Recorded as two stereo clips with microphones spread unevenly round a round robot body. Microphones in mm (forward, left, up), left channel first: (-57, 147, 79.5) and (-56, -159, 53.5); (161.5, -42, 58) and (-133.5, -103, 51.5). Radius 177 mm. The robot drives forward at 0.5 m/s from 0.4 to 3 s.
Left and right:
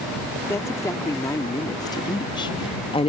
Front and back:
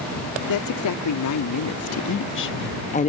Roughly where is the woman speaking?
Ahead.